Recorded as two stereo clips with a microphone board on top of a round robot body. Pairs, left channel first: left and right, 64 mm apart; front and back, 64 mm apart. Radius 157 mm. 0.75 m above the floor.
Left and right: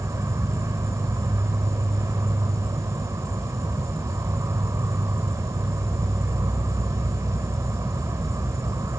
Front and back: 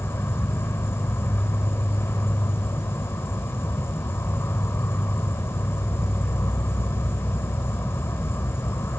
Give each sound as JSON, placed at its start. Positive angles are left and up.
{"t": 0.0, "sound": "an insect", "azimuth_deg": -50}